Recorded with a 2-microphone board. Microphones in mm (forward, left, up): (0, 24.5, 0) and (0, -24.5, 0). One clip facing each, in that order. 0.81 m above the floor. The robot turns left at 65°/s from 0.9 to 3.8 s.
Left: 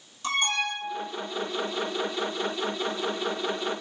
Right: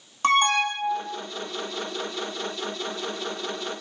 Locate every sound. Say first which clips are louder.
0.2 s an alarm: right 7 dB; 60° right (ahead or behind), 1.7 m; by 1.2 s 50° right (ahead or behind), 1.7 m